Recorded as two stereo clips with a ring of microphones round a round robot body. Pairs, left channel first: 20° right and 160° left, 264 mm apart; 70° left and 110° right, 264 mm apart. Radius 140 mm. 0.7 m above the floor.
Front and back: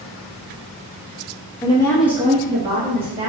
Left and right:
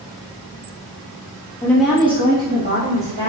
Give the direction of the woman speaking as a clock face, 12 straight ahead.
12 o'clock.